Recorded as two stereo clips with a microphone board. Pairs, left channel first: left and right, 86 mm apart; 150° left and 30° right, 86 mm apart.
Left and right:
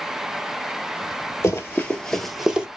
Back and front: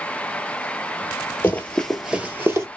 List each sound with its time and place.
1.4 s running footsteps: 105° left, 1.4 m; by 2.7 s 20° right, 1.4 m